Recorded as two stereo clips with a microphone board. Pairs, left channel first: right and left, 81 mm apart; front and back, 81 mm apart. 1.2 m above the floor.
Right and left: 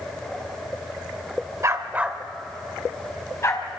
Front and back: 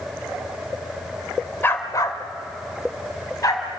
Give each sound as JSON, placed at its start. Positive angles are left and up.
{"t": 1.6, "sound": "a dog barking", "azimuth_deg": 55, "distance_m": 1.4}